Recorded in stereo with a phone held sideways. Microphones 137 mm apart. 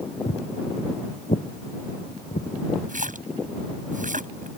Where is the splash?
70° right (ahead or behind).